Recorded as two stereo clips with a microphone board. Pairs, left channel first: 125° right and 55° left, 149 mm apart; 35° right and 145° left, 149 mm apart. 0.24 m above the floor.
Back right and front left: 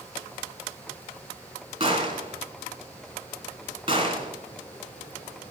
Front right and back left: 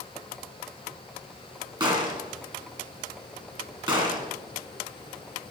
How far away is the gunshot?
About 2 m.